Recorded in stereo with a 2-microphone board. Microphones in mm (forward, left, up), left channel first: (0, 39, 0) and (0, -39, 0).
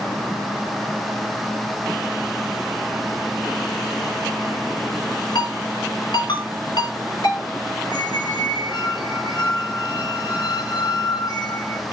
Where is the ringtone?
70° left (ahead or behind), 2 m.